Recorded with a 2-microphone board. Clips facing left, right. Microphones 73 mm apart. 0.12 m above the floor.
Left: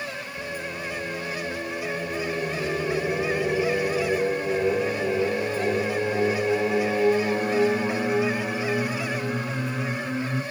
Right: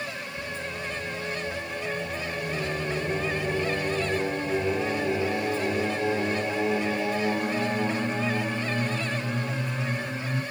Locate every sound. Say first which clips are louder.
0.4 s singing: left 2 dB; 35° left (ahead or behind), 2.5 m